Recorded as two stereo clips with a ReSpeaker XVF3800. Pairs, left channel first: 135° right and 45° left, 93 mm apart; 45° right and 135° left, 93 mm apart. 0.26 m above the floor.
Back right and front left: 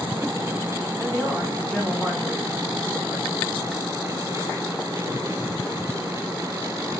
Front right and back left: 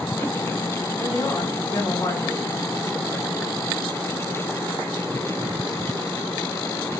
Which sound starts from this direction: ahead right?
A man speaking, at 1.0 s.